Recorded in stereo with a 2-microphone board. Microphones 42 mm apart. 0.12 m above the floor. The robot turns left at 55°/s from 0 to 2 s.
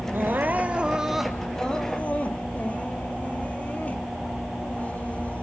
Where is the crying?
115° right, 1.7 m; by 5.4 s 140° left, 1.7 m.